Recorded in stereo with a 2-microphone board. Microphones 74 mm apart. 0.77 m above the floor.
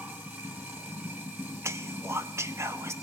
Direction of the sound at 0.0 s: 25° right (ahead or behind).